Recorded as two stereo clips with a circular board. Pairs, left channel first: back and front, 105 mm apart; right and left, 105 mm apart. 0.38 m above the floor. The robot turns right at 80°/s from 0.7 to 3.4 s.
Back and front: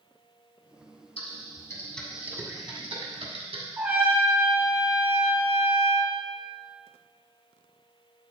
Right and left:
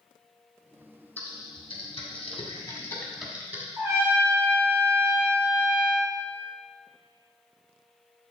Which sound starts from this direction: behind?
Typing on a keyboard, at 1.2 s.